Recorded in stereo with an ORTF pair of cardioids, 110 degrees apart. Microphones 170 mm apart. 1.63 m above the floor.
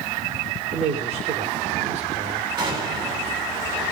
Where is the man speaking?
40° right, 4 m.